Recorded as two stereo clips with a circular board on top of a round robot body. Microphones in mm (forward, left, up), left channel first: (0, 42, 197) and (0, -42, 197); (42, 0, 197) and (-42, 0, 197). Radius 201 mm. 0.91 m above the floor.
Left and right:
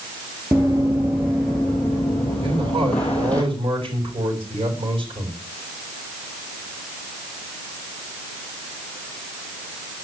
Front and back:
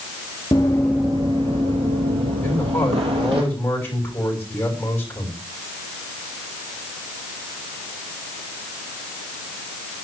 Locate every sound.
0.5 s running footsteps: 30° right, 0.9 m; by 3.4 s 165° left, 2.0 m
2.4 s a man speaking: 65° right, 7 m